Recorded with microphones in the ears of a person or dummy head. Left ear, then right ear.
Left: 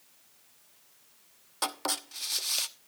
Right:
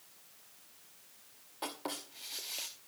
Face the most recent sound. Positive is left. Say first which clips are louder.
# left 8 dB
turn(degrees=55)  # may be behind; listen again after turning